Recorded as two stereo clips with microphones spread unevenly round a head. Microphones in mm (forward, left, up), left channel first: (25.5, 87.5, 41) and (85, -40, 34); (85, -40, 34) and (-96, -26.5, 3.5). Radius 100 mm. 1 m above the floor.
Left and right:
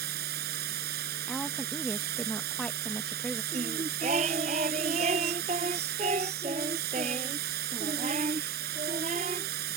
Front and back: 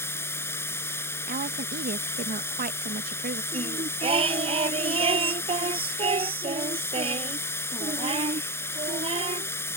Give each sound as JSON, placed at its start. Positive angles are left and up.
{"t": 0.0, "sound": "running water", "azimuth_deg": -80}
{"t": 1.3, "sound": "a woman speaking", "azimuth_deg": -160}
{"t": 3.5, "sound": "singing", "azimuth_deg": -125}